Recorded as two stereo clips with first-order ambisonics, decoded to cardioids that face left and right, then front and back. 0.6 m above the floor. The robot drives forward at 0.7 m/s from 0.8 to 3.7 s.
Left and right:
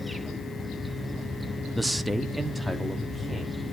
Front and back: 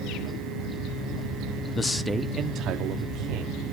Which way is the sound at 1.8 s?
10° right.